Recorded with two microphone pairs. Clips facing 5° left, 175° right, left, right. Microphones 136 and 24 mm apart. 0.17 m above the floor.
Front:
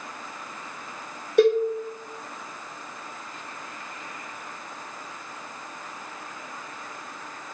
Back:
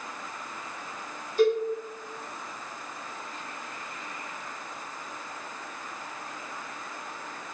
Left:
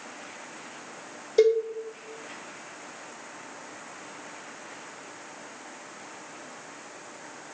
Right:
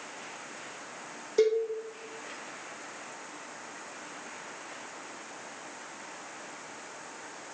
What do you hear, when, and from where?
1.4 s a cowbell: 25° left, 1.6 m